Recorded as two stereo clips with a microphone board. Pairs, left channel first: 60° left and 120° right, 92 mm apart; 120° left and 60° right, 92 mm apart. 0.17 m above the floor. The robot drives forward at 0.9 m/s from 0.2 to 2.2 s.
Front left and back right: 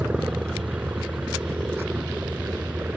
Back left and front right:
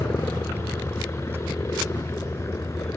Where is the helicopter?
170° left.